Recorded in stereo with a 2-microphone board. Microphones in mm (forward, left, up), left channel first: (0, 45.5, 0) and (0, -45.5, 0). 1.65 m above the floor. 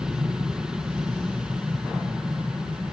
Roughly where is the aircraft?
Centre.